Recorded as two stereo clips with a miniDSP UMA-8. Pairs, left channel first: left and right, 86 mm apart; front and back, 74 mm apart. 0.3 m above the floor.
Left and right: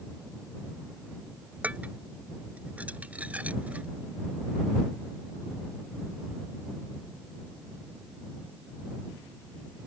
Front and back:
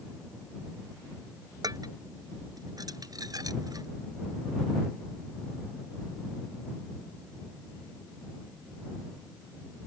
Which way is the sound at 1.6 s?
160° right.